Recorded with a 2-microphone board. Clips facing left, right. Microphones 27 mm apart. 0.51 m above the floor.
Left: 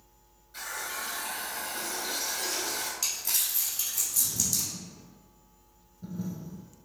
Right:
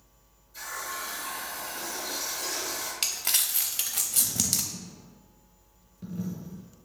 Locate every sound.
0.5 s a running tap: 60° left (ahead or behind), 1.6 m
3.0 s crumpling: 70° right (ahead or behind), 0.5 m
4.7 s a dropped coin: 80° right, 1.8 m